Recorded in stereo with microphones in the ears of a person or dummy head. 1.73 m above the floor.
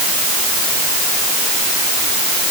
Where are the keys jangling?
I don't hear keys jangling.